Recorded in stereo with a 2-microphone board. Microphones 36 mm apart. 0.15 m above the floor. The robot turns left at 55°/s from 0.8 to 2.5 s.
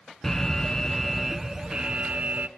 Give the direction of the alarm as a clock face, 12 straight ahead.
11 o'clock.